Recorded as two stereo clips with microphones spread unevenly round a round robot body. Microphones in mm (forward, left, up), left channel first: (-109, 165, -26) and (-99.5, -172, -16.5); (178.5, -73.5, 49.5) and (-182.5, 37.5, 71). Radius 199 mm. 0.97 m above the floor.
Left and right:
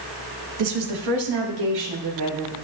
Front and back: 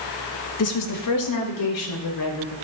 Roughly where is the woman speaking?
Ahead right.